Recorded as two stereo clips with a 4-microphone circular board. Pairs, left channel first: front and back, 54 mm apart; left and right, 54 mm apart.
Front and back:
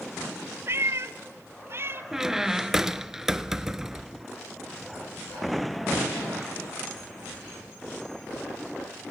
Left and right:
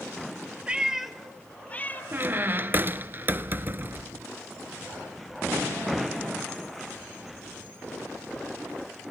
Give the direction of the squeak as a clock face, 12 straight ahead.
3 o'clock.